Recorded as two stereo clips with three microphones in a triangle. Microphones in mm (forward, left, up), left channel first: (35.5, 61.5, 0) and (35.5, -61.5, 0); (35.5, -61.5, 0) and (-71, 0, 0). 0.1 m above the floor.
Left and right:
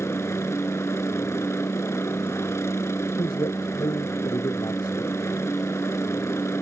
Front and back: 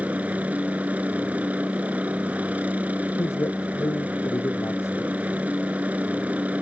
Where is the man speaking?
35° left.